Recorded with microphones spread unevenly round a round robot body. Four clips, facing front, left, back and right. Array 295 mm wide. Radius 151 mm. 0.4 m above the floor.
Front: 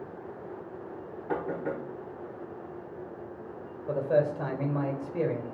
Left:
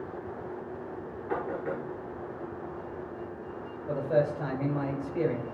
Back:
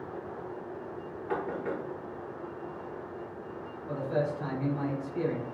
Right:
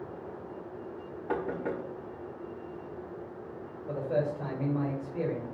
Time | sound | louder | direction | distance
1.3 | knocking | even, front 1 dB | 70° right | 2.5 m
3.9 | a man speaking | left 4 dB, front 5 dB | 15° left | 2 m